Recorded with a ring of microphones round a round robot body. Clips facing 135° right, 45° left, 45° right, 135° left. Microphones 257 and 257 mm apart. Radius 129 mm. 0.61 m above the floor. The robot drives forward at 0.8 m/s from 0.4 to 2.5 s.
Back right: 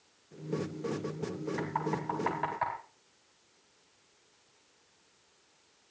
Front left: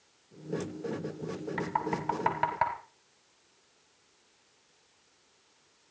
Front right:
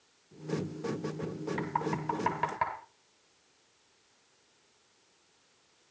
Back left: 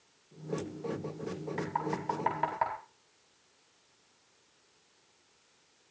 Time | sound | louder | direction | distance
1.6 | knocking | front left 1 dB, front right 1 dB | 25° left | 4.5 m